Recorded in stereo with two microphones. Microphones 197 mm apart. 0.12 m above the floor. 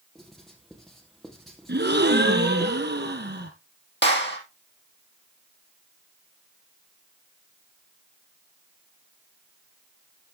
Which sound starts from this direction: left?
A clap, at 4.0 s.